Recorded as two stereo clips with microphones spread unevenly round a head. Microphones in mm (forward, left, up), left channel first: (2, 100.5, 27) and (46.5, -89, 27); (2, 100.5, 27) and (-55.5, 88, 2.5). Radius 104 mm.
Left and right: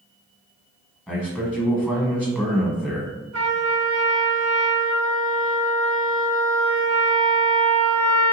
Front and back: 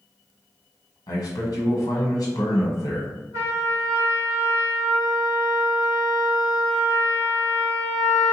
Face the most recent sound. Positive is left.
turn(degrees=-100)